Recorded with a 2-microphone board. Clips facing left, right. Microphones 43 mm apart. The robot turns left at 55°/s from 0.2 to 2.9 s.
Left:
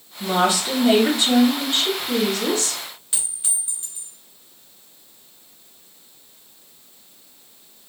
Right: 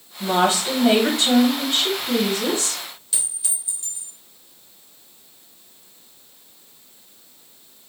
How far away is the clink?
About 1.1 m.